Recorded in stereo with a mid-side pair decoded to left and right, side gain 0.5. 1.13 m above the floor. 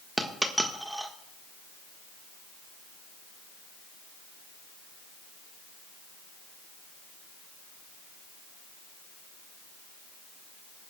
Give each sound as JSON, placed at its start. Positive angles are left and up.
{"t": 0.2, "sound": "a dropped coin", "azimuth_deg": -10, "distance_m": 1.4}